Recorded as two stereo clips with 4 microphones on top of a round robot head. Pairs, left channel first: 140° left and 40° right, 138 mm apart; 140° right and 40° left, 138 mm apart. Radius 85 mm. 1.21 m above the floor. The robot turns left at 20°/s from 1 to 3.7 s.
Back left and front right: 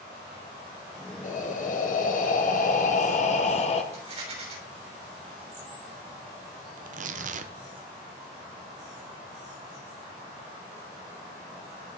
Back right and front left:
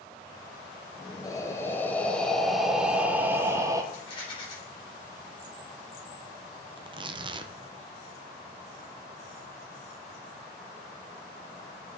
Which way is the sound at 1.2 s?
155° left.